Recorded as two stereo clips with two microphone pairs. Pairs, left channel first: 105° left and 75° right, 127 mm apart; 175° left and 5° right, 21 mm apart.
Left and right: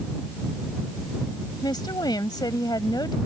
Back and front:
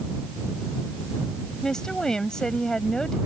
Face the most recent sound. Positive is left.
turn(degrees=135)